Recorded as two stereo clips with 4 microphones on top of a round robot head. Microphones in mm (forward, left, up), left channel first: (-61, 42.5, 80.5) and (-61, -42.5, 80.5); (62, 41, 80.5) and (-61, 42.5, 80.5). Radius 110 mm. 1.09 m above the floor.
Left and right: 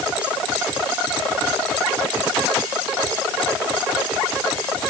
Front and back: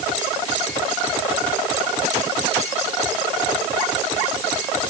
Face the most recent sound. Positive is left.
No sound to turn to.